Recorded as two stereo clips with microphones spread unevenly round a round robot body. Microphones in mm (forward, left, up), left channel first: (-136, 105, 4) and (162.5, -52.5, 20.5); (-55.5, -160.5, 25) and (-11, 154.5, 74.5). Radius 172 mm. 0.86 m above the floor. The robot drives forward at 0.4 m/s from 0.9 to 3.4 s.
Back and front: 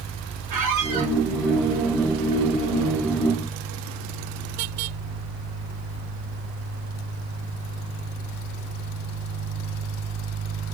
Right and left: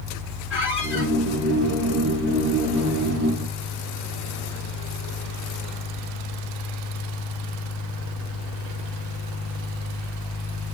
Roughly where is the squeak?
Ahead.